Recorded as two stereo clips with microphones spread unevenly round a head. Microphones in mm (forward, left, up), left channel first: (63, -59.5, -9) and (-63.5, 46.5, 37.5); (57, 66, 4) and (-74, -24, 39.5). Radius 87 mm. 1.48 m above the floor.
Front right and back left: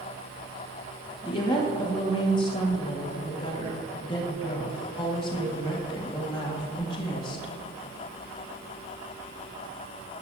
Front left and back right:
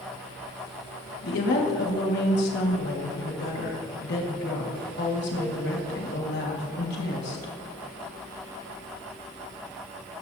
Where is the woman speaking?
20° left, 2.0 m.